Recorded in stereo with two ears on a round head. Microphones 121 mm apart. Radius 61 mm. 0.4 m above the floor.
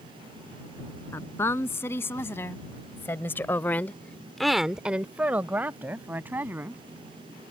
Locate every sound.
1.1 s a woman speaking: 15° left (ahead or behind); by 6.8 s 15° right (ahead or behind)